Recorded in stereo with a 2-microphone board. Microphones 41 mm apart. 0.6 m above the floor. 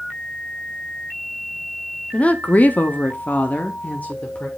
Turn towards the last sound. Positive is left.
turn(degrees=30)  # may be behind; listen again after turning